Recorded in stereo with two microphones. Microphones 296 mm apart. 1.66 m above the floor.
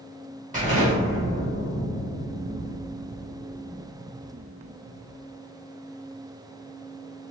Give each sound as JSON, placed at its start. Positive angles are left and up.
{"t": 0.5, "sound": "an explosion", "side_deg": -25, "distance_m": 2.0}